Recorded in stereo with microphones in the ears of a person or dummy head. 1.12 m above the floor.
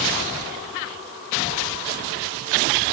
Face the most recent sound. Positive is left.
No sound to turn to.